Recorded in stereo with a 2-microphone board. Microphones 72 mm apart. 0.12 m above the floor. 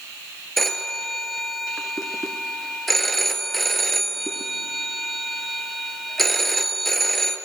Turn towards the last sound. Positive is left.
turn(degrees=0)  # may be behind; listen again after turning